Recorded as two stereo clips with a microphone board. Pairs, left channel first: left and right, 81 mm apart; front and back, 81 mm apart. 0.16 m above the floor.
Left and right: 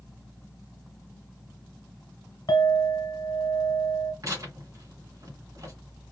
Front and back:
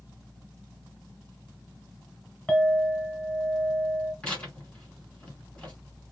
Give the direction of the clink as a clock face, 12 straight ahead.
9 o'clock.